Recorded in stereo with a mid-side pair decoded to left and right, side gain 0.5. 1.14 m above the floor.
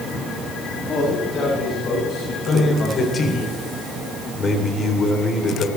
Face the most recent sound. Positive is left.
turn(degrees=45)